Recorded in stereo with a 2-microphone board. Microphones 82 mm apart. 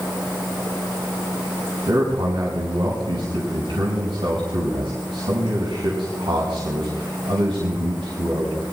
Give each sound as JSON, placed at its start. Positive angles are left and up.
{"t": 1.9, "sound": "a man speaking", "side_deg": -75, "distance_m": 5.0}